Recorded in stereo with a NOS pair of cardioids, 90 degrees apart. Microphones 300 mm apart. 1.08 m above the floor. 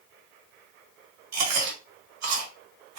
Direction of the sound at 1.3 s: 65° right.